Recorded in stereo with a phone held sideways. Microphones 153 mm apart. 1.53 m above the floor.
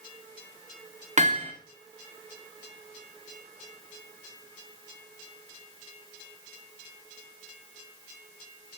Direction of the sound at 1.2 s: 50° right (ahead or behind).